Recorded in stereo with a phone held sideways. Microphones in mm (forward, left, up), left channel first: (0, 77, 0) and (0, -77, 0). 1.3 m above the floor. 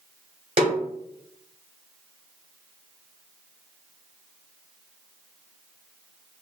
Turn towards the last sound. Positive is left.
turn(degrees=-35)  # may be behind; listen again after turning